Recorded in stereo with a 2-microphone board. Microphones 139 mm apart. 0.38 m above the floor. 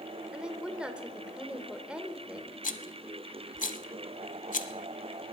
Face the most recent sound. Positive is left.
turn(degrees=70)  # may be behind; listen again after turning